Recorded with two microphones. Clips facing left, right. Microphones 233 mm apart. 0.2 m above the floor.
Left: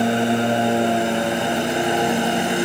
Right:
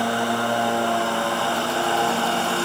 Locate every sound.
0.0 s a lawn mower: 20° left (ahead or behind); by 2.6 s 15° left (ahead or behind)